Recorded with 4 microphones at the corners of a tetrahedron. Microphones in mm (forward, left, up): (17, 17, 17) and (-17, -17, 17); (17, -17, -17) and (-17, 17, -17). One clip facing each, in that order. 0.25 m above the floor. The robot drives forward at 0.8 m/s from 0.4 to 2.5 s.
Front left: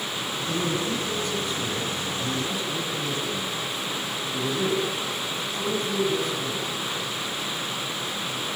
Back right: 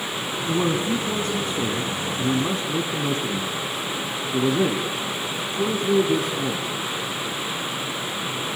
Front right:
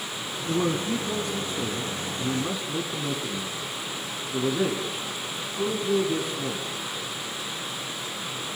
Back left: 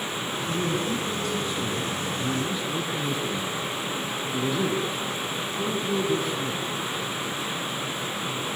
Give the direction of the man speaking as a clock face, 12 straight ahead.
3 o'clock.